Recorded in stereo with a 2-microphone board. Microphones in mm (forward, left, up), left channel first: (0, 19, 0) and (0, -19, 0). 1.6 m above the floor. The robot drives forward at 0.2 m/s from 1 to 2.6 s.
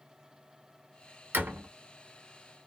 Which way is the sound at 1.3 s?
50° right (ahead or behind).